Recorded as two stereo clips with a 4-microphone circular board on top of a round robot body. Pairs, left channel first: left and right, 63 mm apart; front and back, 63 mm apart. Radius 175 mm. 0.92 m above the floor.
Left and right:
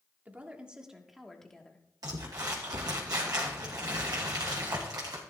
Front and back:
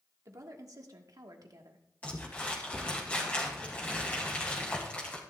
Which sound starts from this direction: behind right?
A woman speaking, at 0.2 s.